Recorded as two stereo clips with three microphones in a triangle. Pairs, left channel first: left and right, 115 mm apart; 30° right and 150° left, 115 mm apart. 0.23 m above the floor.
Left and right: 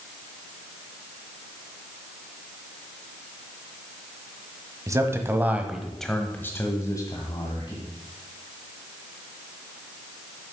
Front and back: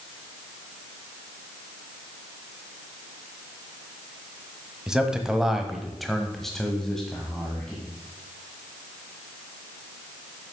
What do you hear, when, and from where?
4.9 s a man speaking: 130° right, 1.2 m; by 7.9 s 50° left, 1.6 m